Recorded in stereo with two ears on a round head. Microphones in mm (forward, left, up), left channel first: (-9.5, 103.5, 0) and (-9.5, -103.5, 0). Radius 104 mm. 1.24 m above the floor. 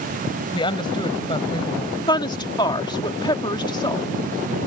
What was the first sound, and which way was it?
A woman speaking, 25° left (ahead or behind).